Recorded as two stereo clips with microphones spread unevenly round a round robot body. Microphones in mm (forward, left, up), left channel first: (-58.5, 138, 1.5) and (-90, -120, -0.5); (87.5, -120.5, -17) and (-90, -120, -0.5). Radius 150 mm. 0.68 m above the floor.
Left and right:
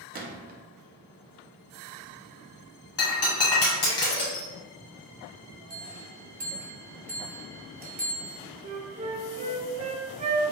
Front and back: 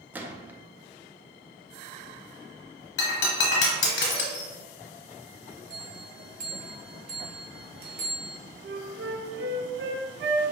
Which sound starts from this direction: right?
A gunshot, at 0.1 s.